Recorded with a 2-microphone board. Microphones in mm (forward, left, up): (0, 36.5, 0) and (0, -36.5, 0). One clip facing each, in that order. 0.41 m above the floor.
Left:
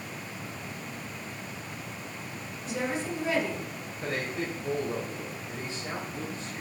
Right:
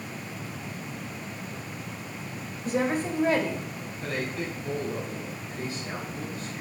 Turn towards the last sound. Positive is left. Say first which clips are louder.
# even
turn(degrees=25)  # may be behind; listen again after turning